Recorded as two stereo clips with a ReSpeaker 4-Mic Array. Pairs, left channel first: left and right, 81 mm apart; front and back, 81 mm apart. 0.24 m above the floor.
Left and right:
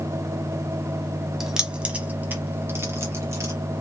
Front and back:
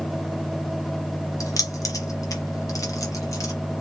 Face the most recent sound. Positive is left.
turn(degrees=-40)